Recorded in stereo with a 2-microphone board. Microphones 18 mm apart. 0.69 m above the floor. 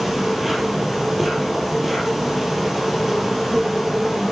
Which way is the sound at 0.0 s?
10° right (ahead or behind).